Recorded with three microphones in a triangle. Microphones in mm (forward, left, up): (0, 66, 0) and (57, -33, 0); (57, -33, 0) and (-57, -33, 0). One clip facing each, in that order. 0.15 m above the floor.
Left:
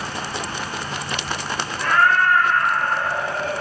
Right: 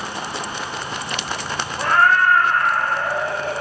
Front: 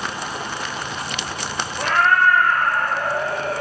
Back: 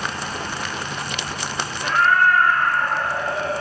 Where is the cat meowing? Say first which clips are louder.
Right 2 dB, front 1 dB; 5° right, 3 m.